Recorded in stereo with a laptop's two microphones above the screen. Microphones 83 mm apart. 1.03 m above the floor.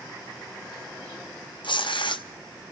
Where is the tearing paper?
75° left (ahead or behind), 0.8 m.